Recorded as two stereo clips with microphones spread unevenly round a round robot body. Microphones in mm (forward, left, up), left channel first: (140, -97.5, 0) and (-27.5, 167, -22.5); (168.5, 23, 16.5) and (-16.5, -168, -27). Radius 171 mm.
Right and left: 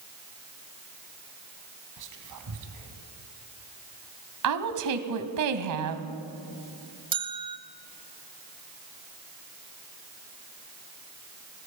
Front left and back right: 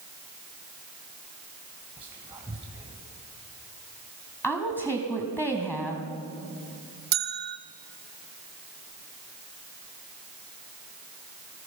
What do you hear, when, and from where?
2.0 s whispering: 145° left, 2 m
4.4 s a woman speaking: 135° left, 2.0 m
7.1 s a bell: 170° right, 0.6 m